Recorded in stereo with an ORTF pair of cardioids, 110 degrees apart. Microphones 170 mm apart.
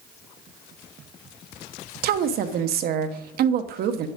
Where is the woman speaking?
65° right, 1.1 m.